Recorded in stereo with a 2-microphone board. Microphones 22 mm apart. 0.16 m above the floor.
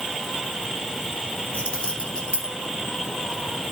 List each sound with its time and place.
1.5 s keys jangling: 65° left (ahead or behind), 2.5 m